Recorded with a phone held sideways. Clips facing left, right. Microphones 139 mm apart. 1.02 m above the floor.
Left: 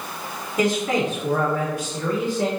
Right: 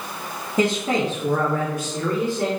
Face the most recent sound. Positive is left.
turn(degrees=-65)  # may be behind; listen again after turning